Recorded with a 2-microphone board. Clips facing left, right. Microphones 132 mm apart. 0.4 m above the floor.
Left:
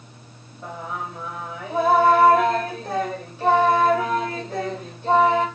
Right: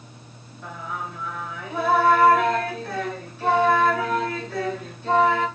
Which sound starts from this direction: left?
Singing, at 0.6 s.